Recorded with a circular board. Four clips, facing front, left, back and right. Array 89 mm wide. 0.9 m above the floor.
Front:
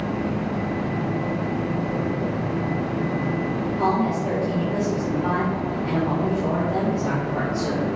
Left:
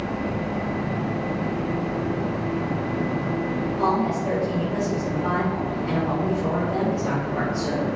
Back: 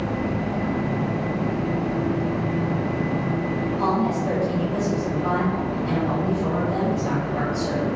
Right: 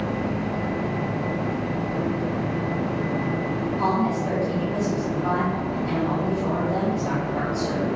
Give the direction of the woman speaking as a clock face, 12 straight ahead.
11 o'clock.